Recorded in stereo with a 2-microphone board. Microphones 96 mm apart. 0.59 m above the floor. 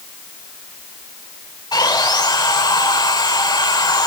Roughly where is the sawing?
Left.